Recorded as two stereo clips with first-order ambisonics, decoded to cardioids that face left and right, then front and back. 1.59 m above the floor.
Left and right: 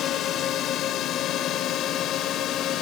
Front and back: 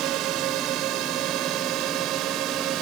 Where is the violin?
I don't hear a violin.